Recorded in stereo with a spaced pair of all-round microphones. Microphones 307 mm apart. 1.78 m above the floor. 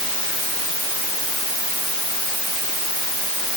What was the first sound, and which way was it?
Only background noise.